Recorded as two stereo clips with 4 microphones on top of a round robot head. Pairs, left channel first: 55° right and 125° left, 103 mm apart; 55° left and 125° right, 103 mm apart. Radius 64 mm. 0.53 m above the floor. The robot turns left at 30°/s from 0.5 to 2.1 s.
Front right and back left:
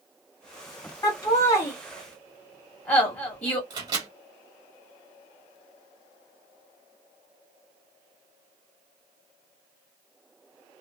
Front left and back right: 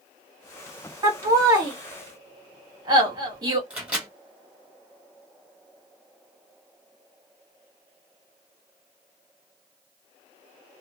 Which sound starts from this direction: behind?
A microwave, at 3.7 s.